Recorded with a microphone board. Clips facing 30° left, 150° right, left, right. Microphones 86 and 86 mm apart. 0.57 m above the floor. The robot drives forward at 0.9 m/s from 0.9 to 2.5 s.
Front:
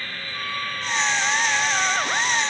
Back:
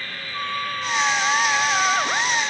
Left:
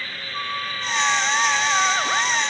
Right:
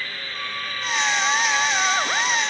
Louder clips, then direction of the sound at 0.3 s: Back 4 dB, left 4 dB; 145° left.